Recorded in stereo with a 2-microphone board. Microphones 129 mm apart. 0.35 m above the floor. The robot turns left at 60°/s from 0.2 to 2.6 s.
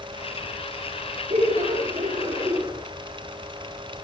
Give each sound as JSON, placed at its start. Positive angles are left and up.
{"t": 1.3, "sound": "laughter", "azimuth_deg": -80, "distance_m": 4.5}